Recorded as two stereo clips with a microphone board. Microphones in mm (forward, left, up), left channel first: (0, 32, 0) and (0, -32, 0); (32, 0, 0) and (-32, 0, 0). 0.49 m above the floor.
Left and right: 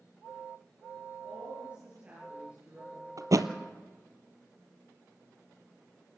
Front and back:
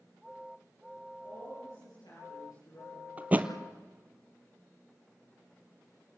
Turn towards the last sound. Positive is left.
turn(degrees=-115)